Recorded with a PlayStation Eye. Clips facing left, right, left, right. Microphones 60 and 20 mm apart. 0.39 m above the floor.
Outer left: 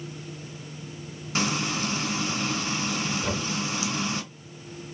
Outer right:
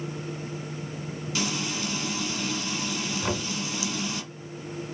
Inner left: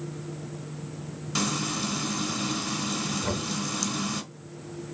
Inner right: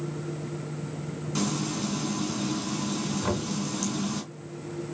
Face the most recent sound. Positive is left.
turn(degrees=-25)  # may be behind; listen again after turning